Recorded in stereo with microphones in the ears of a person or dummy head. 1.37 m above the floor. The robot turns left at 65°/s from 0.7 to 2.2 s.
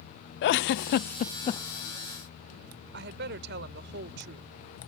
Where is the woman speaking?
65° right (ahead or behind).